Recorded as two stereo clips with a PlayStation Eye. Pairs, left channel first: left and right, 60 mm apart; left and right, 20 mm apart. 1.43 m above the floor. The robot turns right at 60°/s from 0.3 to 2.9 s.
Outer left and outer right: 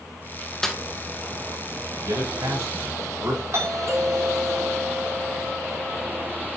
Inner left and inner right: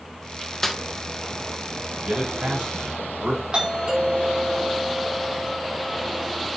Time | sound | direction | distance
0.6 | a snare drum | 10° left (ahead or behind) | 1.5 m
2.0 | a man speaking | 100° right | 5.5 m
3.5 | a doorbell | 55° right (ahead or behind) | 5 m